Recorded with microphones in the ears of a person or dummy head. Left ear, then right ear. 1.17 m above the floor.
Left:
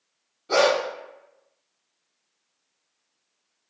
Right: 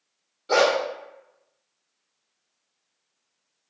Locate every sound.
0.5 s a dog barking: 10° right (ahead or behind), 0.5 m